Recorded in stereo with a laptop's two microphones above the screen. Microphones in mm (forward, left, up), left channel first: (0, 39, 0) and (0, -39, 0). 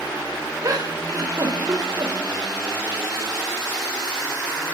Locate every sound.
0.6 s a giggle: 50° right (ahead or behind), 4 m